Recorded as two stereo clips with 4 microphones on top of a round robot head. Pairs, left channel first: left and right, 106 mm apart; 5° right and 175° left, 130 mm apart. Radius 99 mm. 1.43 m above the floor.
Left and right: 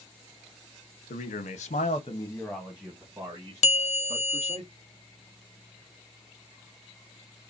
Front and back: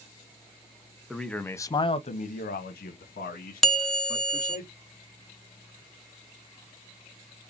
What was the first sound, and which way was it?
A man speaking, 85° left.